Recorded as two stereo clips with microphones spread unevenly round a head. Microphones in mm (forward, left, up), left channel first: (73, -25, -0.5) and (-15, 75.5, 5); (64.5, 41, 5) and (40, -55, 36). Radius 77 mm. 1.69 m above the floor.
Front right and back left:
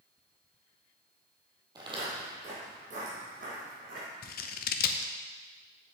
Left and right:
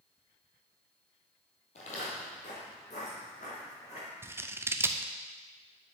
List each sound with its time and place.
1.8 s footsteps: 85° left, 2.5 m; by 4.1 s 130° left, 5 m
4.2 s scissors: 40° right, 0.7 m